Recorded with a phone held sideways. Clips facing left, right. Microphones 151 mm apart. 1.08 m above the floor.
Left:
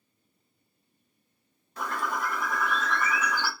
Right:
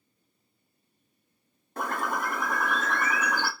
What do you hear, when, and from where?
1.8 s a bird: 55° right (ahead or behind), 0.6 m